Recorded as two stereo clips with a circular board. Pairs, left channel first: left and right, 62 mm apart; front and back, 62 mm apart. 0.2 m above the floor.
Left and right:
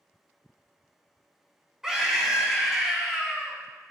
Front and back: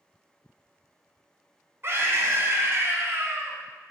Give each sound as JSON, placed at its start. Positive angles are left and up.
{"t": 1.8, "sound": "a scream", "azimuth_deg": -165, "distance_m": 1.4}